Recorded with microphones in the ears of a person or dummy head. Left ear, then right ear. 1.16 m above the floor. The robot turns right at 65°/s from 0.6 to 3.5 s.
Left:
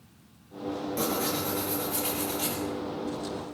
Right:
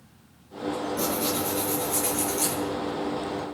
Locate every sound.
1.0 s tearing paper: 150° left, 6 m; by 2.5 s 105° right, 6 m